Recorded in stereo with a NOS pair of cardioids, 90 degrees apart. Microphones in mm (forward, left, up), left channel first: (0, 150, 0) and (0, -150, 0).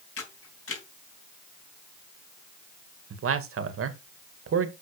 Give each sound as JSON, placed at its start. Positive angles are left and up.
{"t": 0.2, "sound": "a camera shutter", "azimuth_deg": 45, "distance_m": 3.5}
{"t": 3.1, "sound": "a man speaking", "azimuth_deg": -50, "distance_m": 1.9}